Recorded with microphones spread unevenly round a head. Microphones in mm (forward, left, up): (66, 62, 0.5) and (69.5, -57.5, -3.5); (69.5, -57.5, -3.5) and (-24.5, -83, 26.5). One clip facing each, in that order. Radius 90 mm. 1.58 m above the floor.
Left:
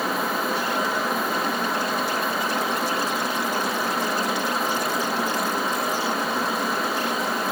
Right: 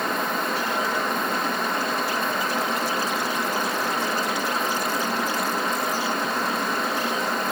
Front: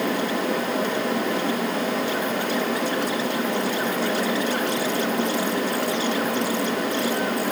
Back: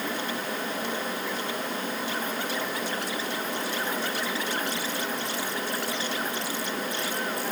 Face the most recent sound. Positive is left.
No sound to turn to.